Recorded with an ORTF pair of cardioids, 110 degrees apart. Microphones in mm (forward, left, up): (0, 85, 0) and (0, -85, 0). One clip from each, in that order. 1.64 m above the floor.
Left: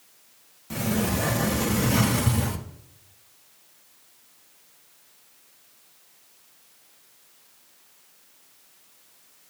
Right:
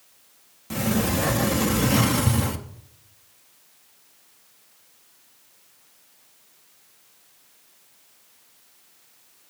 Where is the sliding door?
15° right, 0.9 m.